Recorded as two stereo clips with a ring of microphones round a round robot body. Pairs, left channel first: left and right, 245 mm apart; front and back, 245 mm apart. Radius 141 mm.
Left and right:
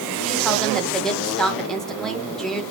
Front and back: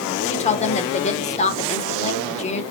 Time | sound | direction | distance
0.3 | a woman speaking | 5° left | 0.8 m